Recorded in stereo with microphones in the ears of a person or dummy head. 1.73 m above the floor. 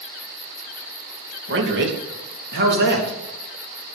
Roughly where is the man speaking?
Right.